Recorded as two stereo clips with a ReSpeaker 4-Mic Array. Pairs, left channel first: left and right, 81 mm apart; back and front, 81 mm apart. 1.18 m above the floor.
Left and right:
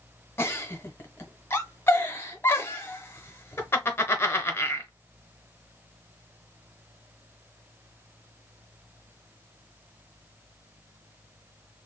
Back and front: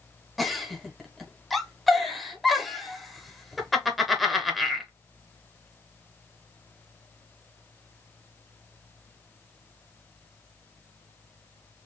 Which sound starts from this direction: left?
A giggle, at 0.4 s.